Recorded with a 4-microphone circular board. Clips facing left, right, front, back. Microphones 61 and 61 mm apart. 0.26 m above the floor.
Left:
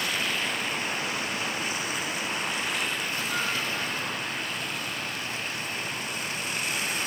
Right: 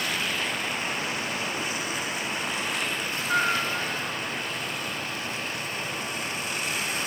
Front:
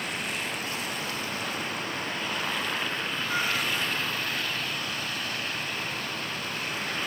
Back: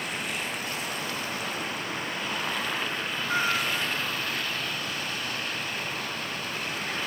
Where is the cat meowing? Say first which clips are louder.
Right 8 dB, back 3 dB; 120° right, 1.8 m.